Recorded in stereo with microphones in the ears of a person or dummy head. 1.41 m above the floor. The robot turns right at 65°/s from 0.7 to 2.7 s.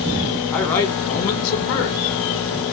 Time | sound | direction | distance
0.5 | a man speaking | 10° left | 0.9 m